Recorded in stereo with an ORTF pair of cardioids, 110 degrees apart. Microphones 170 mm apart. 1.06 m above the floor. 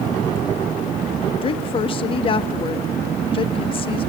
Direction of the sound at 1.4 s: 30° left.